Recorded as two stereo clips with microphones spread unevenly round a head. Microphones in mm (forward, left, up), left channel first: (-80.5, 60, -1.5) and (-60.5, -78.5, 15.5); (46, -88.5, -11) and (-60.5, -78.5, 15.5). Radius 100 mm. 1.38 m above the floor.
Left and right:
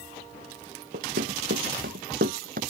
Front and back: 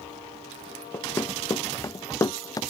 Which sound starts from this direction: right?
Running footsteps, at 0.9 s.